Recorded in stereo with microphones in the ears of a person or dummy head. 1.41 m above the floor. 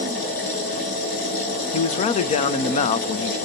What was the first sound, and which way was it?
A machine running, 60° left (ahead or behind).